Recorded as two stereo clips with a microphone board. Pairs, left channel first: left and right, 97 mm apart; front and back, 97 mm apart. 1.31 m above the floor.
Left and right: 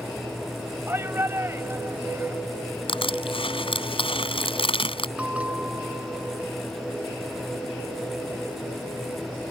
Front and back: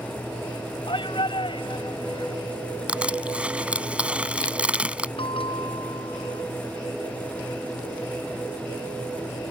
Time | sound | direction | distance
0.9 | a shout | 25° right | ?
2.9 | crushing | 100° left | ?
5.2 | a bell | 15° right | ?